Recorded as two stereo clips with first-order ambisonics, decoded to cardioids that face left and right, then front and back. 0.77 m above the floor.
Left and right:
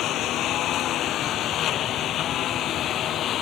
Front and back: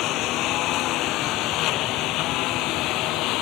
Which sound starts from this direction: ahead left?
A lawn mower, at 0.0 s.